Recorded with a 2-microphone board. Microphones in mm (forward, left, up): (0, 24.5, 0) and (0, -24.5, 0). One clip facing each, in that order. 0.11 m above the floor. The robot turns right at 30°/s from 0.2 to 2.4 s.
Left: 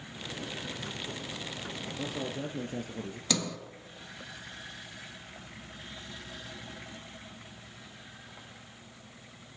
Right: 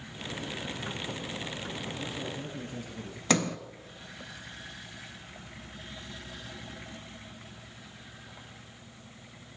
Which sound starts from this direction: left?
A man speaking, at 2.0 s.